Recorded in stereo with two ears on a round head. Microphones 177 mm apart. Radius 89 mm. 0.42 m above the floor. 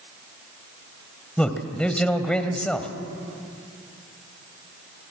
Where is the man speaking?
5° left (ahead or behind), 1.9 m.